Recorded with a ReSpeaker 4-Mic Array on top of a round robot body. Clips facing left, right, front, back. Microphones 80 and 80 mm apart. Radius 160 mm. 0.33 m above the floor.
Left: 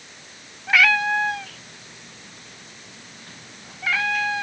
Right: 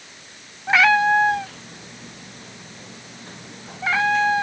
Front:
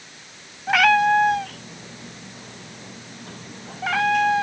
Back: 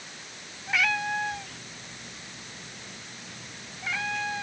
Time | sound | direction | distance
0.7 | a cat meowing | 25° right | ?